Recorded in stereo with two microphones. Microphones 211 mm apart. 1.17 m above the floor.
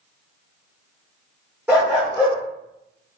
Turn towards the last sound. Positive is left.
turn(degrees=-5)  # may be behind; listen again after turning